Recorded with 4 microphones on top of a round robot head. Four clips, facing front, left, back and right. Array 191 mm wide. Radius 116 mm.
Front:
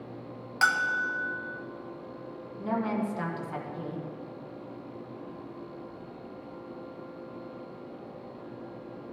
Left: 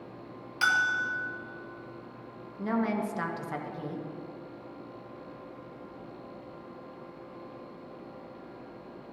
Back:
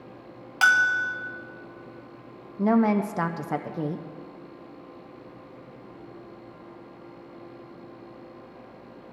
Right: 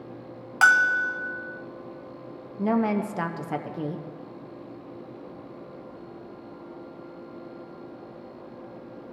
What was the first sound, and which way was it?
A bell, 105° right.